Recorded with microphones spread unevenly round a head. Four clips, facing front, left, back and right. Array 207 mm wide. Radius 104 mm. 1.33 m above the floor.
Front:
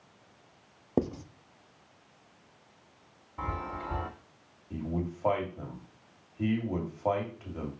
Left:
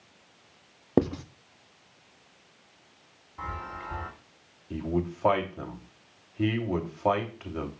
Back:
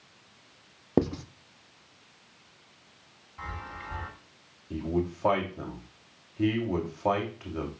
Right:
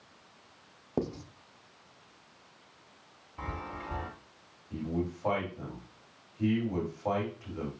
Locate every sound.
1.0 s writing: 135° left, 0.7 m
3.4 s a chime: 15° right, 1.9 m
4.7 s a man speaking: 125° left, 3 m